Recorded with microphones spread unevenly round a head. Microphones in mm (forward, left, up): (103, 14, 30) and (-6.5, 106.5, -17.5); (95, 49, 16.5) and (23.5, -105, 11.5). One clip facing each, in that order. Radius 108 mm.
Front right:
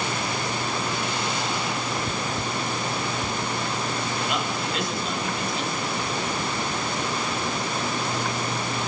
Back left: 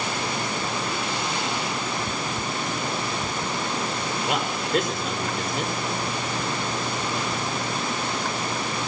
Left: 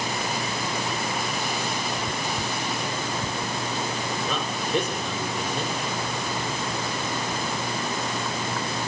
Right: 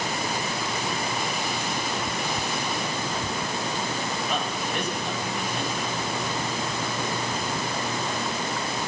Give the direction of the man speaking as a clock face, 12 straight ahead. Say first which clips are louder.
Back left 3 dB, left 2 dB; 9 o'clock.